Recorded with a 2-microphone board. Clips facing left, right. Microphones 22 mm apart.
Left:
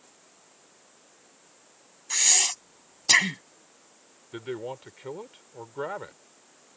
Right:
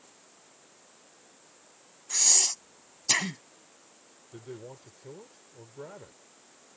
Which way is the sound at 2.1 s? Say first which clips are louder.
Left 2 dB; 35° left (ahead or behind).